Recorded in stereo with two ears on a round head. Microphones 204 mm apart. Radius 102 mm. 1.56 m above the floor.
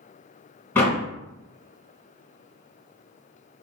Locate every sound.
0.8 s a door slam: 10° left (ahead or behind), 1.4 m